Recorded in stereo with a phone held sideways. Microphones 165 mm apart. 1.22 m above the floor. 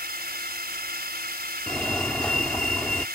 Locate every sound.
0.0 s a drone: 75° right (ahead or behind)
1.7 s a fire alarm: 5° left (ahead or behind)